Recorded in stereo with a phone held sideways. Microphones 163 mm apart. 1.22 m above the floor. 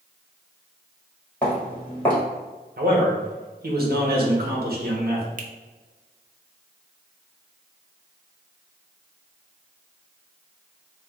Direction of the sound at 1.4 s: 10° left (ahead or behind).